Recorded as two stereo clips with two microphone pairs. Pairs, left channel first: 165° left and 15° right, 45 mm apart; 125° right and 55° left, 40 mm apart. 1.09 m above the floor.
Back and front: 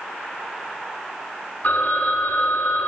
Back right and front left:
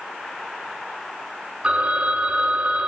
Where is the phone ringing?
115° left, 7.5 m.